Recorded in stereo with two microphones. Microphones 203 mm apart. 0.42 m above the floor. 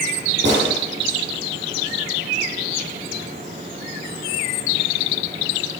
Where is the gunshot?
65° right (ahead or behind), 7 m.